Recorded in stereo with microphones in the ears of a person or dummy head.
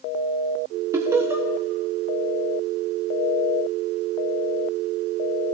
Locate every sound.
0.9 s laughter: 15° right (ahead or behind), 0.8 m